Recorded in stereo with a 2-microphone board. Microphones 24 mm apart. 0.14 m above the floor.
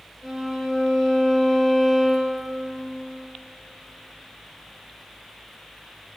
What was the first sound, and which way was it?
A violin, 10° right (ahead or behind).